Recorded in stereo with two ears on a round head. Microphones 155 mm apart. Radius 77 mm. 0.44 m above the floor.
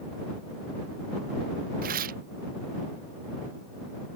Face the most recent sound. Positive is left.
turn(degrees=-55)  # may be behind; listen again after turning